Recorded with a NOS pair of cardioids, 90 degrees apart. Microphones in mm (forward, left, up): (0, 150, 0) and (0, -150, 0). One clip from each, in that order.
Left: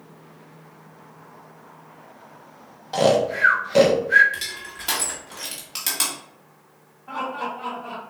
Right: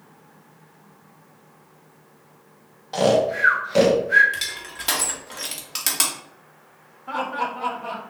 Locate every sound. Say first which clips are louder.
2.9 s snoring: even; 10° left, 1.1 m
4.3 s crushing: right 2 dB; 25° right, 1.7 m
7.1 s laughter: right 3 dB; 40° right, 2 m